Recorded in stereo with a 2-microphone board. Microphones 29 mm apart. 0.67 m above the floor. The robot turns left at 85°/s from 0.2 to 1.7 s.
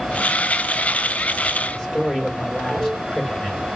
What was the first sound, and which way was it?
A man speaking, 20° left (ahead or behind).